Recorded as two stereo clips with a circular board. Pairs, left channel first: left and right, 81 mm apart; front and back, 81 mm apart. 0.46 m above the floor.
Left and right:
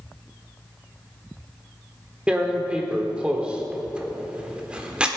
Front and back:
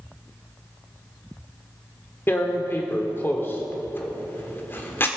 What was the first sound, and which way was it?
Tearing paper, 25° right.